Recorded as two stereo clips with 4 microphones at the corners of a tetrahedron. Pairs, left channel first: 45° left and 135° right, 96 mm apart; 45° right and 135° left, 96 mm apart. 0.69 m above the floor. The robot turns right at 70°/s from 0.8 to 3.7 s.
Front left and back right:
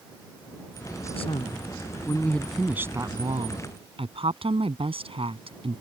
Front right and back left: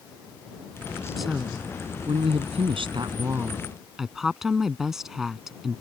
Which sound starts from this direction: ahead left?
A woman speaking, at 1.2 s.